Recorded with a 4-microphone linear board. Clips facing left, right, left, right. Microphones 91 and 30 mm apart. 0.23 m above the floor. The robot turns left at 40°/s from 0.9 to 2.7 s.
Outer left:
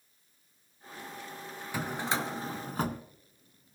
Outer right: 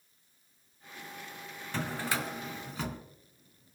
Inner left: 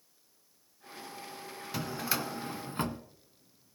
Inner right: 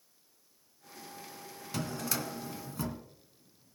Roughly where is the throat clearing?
No throat clearing in this recording.